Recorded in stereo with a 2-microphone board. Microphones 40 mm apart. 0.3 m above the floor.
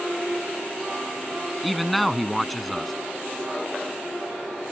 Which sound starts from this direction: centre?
A man speaking, at 1.6 s.